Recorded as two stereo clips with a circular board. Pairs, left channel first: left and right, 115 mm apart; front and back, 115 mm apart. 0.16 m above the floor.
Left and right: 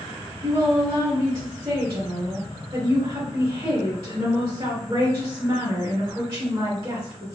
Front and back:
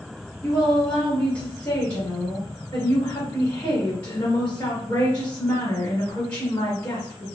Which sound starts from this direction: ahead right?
A woman speaking, at 0.4 s.